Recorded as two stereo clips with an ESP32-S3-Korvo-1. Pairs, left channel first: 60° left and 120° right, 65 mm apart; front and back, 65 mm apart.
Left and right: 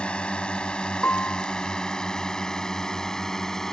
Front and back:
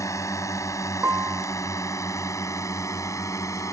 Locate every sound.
0.0 s a drone: 10° right; by 3.7 s 20° right
1.0 s a piano: 125° left